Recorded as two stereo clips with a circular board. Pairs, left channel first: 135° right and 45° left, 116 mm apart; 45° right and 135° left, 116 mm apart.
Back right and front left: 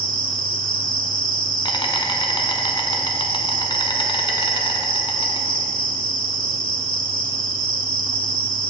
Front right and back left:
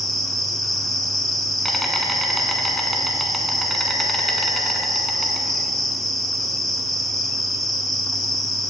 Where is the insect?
135° right, 0.7 m.